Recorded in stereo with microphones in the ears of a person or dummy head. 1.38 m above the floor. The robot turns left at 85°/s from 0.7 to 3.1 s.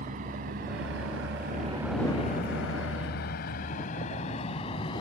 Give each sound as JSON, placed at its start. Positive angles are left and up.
{"t": 0.0, "sound": "a vehicle", "side_deg": -40}